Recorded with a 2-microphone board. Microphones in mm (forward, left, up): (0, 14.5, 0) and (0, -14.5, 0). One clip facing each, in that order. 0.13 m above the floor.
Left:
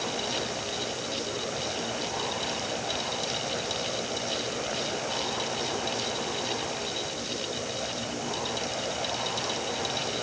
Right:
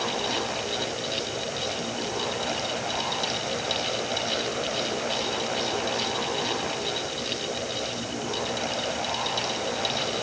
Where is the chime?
No chime in this recording.